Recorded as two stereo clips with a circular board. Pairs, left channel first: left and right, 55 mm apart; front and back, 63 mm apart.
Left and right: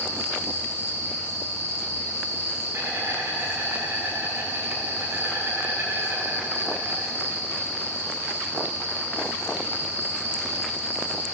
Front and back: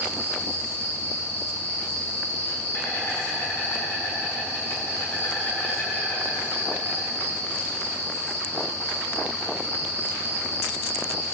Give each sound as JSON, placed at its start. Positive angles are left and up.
{"t": 0.0, "sound": "an insect", "azimuth_deg": -50, "distance_m": 7.5}